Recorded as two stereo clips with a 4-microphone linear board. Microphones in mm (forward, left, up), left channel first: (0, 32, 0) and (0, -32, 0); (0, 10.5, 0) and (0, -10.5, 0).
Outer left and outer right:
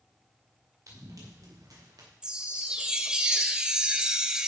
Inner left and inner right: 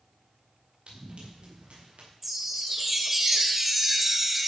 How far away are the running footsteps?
About 5.5 m.